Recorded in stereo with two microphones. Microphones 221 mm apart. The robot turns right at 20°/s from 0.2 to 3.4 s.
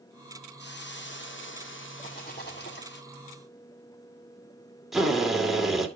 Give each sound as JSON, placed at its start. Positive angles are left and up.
{"t": 0.6, "sound": "a hiss", "azimuth_deg": 65, "distance_m": 1.1}
{"t": 2.0, "sound": "a rattle", "side_deg": 40, "distance_m": 3.5}
{"t": 4.9, "sound": "a drill", "side_deg": 0, "distance_m": 2.5}